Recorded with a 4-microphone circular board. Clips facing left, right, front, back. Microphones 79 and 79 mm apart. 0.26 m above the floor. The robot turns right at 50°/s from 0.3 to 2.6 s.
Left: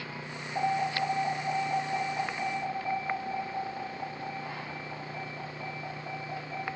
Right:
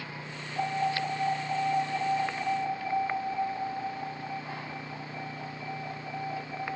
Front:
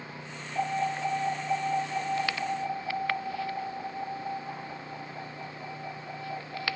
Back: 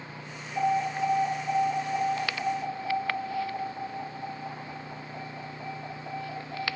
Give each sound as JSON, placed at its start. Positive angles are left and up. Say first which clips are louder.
{"t": 0.6, "sound": "an alarm", "louder": "left 1 dB, back 3 dB", "azimuth_deg": 70, "distance_m": 6.5}